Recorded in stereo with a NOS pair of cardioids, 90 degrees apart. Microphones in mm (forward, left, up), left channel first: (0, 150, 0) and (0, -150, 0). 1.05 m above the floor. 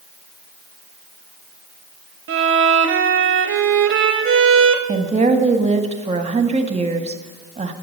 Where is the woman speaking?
20° right, 1.3 m.